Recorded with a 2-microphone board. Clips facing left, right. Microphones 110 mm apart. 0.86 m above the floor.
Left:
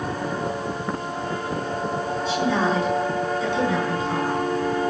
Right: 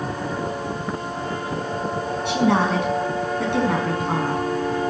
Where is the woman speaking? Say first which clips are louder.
Right 3 dB; 70° right (ahead or behind), 6.5 m; by 4.4 s 55° right (ahead or behind), 7.5 m.